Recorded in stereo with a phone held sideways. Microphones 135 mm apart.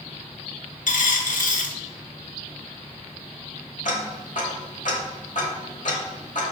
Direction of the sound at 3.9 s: 70° left (ahead or behind).